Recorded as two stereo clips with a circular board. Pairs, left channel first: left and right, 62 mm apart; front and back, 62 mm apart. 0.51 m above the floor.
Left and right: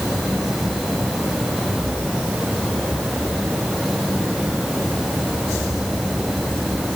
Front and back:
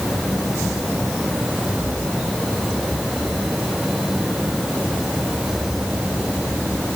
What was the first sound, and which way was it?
Only background noise.